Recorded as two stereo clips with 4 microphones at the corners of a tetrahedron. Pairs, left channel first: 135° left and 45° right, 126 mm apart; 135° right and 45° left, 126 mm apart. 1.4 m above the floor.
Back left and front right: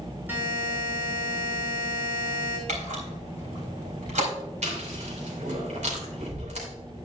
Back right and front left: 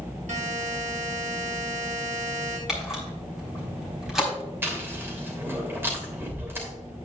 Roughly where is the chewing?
Ahead right.